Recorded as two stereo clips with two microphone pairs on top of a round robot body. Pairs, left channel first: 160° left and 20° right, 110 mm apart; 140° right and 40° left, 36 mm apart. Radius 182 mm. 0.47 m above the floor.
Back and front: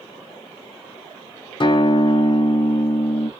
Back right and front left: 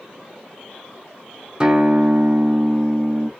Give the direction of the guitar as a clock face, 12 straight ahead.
8 o'clock.